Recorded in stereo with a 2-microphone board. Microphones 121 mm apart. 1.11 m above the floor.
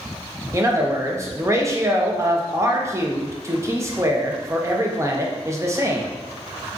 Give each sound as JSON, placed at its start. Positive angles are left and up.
{"t": 0.5, "sound": "a man speaking", "side_deg": -25, "distance_m": 0.5}